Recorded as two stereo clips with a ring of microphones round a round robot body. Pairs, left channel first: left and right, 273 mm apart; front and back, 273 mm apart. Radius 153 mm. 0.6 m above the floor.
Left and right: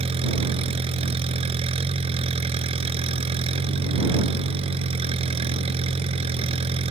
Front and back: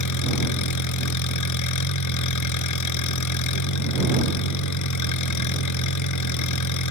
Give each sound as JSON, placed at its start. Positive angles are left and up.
{"t": 0.0, "sound": "an engine running", "azimuth_deg": -15}